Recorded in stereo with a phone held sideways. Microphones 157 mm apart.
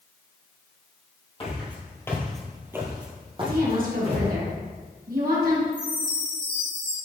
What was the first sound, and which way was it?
Footsteps, 35° left (ahead or behind).